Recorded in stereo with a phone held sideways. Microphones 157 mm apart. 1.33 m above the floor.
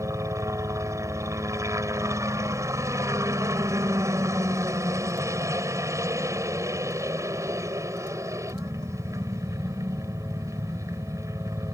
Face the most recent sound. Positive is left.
turn(degrees=-20)  # may be behind; listen again after turning